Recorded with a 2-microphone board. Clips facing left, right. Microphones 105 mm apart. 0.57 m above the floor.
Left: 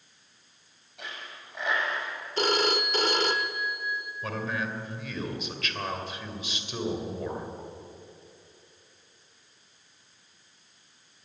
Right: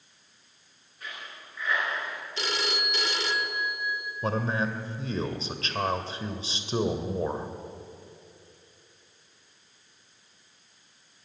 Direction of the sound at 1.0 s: 80° left.